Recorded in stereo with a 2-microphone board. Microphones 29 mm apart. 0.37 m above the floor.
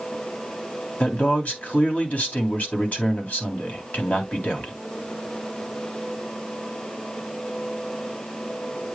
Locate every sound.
1.0 s a man speaking: 60° left (ahead or behind), 3 m